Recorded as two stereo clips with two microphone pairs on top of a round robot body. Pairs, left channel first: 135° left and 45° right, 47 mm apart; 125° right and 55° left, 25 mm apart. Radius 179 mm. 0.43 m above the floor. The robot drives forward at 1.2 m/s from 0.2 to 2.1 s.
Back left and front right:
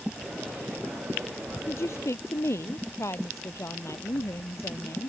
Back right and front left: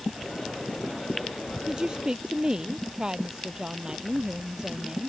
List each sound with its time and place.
1.7 s a woman speaking: 115° left